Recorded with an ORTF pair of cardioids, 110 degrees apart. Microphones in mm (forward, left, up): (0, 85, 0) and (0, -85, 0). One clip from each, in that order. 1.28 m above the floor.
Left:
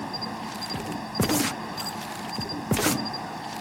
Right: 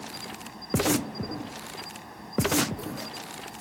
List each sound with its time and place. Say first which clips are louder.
0.0 s an insect: left 6 dB; 50° left